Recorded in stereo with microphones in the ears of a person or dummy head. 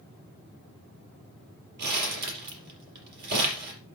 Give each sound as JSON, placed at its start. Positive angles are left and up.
{"t": 1.8, "sound": "crumpling", "side_deg": -60, "distance_m": 5.0}